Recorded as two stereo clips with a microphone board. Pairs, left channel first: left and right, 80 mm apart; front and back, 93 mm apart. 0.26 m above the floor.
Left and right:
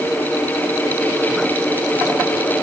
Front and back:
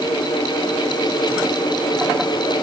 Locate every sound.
Only background noise.